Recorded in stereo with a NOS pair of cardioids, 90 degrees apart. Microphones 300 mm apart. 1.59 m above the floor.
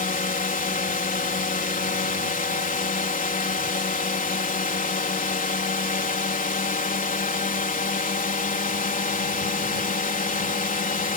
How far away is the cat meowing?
No cat meowing in this recording.